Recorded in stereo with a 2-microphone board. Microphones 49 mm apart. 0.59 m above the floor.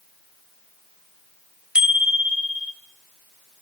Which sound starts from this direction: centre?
A bicycle bell, at 1.8 s.